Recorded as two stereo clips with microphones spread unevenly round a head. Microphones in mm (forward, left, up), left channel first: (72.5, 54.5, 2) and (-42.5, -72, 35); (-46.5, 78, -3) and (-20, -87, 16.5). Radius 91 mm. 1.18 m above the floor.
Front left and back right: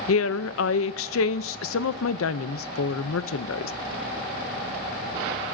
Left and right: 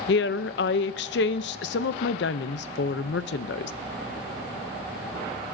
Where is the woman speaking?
60° left, 0.5 m.